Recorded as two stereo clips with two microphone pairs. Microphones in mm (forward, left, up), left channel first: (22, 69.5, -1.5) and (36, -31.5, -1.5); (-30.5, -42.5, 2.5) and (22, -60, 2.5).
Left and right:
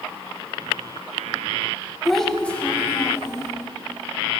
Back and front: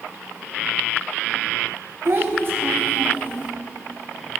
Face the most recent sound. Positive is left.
turn(degrees=40)